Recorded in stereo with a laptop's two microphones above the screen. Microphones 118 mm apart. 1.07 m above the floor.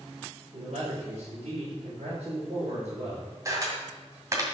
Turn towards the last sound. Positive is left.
turn(degrees=-25)  # may be behind; listen again after turning